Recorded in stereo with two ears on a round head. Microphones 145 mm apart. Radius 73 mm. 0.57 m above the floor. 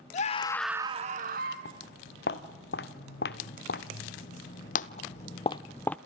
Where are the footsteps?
75° left (ahead or behind), 2.5 m; by 6.0 s 5° left (ahead or behind), 0.6 m.